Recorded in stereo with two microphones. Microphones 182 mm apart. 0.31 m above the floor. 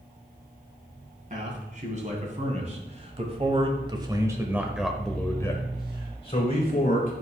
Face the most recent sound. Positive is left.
turn(degrees=45)  # may be behind; listen again after turning